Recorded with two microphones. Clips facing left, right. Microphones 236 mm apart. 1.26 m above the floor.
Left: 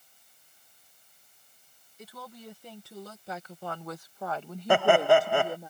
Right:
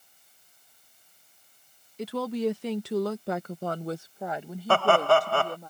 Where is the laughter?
15° left (ahead or behind).